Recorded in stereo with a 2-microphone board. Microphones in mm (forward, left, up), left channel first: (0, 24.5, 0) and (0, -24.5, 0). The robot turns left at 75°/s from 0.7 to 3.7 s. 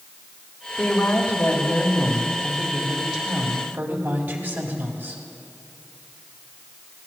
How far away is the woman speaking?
About 1.8 m.